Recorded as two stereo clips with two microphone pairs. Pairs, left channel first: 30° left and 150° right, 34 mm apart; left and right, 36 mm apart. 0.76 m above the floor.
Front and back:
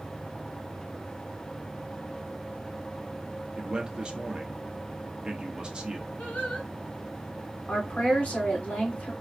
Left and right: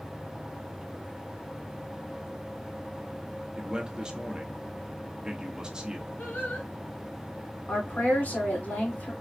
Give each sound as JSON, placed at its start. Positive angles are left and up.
{"t": 3.6, "sound": "a man speaking", "azimuth_deg": -130, "distance_m": 0.8}
{"t": 6.2, "sound": "singing", "azimuth_deg": 60, "distance_m": 2.0}
{"t": 7.7, "sound": "a woman speaking", "azimuth_deg": 70, "distance_m": 2.5}